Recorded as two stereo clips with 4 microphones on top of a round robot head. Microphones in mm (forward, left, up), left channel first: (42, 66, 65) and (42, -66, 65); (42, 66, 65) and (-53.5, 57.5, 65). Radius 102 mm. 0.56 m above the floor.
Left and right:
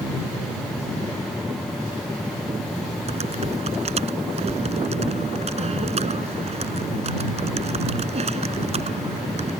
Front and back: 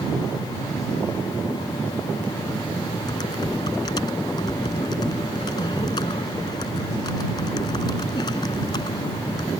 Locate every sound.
3.1 s typing on a keyboard: 50° right